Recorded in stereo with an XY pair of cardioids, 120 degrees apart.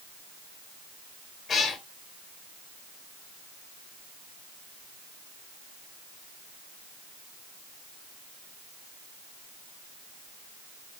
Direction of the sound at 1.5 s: 45° left.